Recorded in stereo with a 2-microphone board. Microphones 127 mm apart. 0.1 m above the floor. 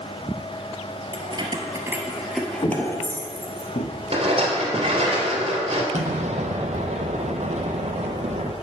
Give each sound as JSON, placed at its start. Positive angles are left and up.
{"t": 1.1, "sound": "keys jangling", "side_deg": -45, "distance_m": 1.3}
{"t": 2.6, "sound": "footsteps", "side_deg": 40, "distance_m": 1.4}
{"t": 4.1, "sound": "a rattle", "side_deg": -50, "distance_m": 2.5}
{"t": 5.9, "sound": "an explosion", "side_deg": -65, "distance_m": 1.0}